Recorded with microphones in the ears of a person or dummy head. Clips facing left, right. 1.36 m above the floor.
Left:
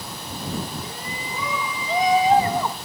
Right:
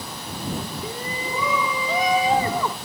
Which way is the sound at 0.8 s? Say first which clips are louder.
Right 4 dB; 80° right.